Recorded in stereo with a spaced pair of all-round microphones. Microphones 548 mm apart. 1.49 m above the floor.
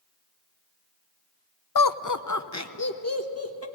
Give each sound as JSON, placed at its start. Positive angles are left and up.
{"t": 1.8, "sound": "laughter", "side_deg": 40, "distance_m": 0.6}